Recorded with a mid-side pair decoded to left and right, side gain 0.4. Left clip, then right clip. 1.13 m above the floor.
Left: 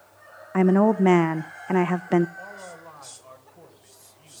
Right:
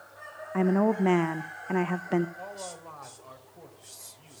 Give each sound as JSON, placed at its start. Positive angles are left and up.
{"t": 0.5, "sound": "a woman speaking", "azimuth_deg": 45, "distance_m": 0.6}
{"t": 2.4, "sound": "a man speaking", "azimuth_deg": -10, "distance_m": 5.5}